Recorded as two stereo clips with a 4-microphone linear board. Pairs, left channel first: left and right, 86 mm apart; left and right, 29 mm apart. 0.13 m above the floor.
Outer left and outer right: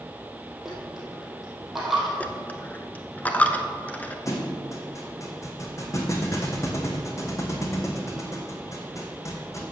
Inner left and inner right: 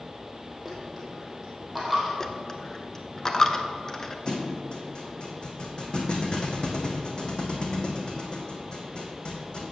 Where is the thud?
40° left (ahead or behind), 1.7 m.